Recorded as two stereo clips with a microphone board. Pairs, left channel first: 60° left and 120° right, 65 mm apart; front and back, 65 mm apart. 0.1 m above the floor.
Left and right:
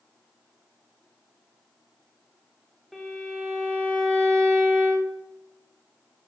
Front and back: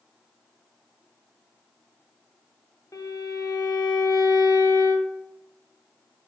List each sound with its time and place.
2.9 s a violin: 30° right, 3 m